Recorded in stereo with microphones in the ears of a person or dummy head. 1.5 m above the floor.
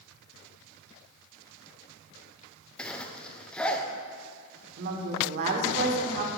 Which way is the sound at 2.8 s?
5° left (ahead or behind).